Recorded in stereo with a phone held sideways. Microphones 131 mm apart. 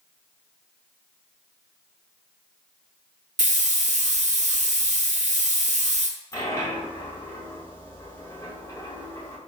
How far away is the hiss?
About 0.6 m.